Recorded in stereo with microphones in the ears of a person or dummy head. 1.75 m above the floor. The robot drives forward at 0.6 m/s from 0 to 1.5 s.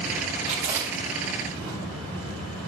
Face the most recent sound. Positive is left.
turn(degrees=-15)  # may be behind; listen again after turning